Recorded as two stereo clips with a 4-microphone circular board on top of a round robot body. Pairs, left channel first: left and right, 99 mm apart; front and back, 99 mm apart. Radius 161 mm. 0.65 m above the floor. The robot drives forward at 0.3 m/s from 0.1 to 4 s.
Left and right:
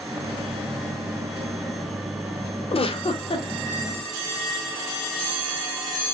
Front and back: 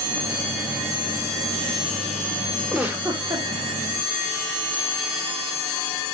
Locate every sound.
2.7 s a giggle: 100° left, 0.8 m; by 3.5 s 115° left, 0.9 m